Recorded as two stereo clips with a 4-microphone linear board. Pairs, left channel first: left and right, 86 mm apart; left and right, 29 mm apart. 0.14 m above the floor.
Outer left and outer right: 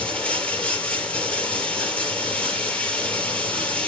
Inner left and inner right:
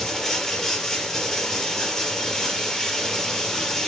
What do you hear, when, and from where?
0.0 s running water: 15° left (ahead or behind), 3 m